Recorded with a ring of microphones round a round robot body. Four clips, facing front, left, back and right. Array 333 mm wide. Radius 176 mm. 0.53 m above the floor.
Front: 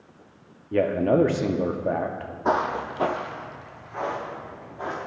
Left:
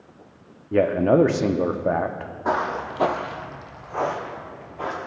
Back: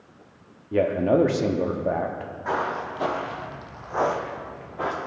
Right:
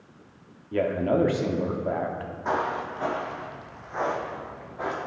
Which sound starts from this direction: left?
A man speaking, at 0.7 s.